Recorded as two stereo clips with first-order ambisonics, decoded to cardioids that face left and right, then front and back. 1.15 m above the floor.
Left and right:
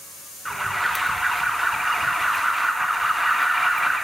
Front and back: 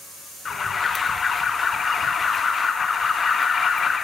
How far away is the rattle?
I don't hear a rattle.